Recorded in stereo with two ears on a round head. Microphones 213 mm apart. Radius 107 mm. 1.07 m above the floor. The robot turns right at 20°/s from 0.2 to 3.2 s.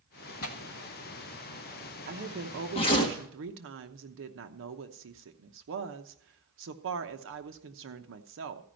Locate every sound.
0.4 s tearing paper: 65° left (ahead or behind), 1.5 m; by 3.1 s 20° left (ahead or behind), 1.5 m
2.1 s a woman speaking: 40° right (ahead or behind), 0.9 m; by 8.7 s 55° right (ahead or behind), 0.9 m